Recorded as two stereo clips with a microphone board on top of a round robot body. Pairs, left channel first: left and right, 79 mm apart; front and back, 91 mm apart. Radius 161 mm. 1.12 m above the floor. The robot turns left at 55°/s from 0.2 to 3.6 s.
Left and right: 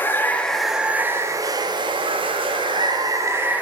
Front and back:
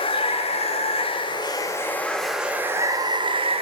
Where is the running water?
25° left, 1.5 m; by 3.6 s 165° right, 1.5 m.